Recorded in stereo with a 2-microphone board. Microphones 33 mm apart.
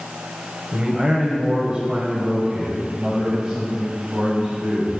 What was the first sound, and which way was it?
A man speaking, 30° right (ahead or behind).